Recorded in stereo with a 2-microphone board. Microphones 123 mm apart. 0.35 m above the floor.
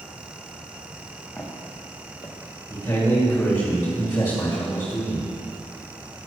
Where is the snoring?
I don't hear snoring.